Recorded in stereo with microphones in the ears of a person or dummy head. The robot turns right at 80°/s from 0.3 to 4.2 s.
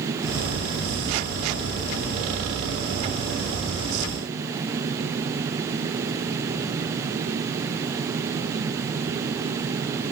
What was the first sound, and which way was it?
Only background noise.